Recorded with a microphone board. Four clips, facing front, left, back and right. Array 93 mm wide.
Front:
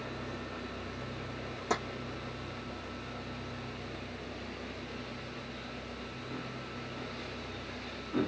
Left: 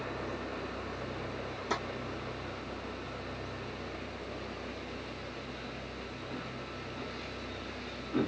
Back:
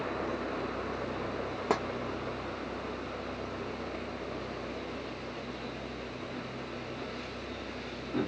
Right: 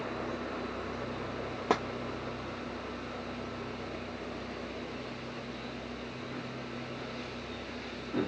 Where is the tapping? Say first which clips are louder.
Right 6 dB, back 3 dB; 125° right, 0.7 m.